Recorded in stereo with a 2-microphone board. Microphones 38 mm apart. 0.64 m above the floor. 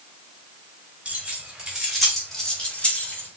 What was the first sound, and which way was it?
Keys jangling, 30° right (ahead or behind).